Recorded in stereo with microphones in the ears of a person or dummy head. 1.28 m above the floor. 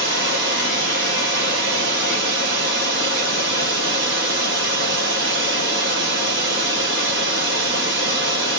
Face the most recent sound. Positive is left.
turn(degrees=-65)  # may be behind; listen again after turning